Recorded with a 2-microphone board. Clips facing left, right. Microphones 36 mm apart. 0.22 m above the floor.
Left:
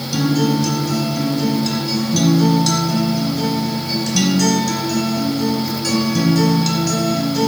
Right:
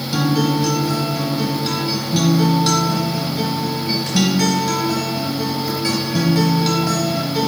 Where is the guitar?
20° right (ahead or behind), 0.8 m.